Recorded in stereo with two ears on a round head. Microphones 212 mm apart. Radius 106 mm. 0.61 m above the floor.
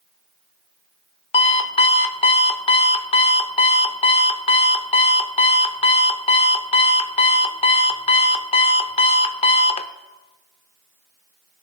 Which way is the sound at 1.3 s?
25° left (ahead or behind).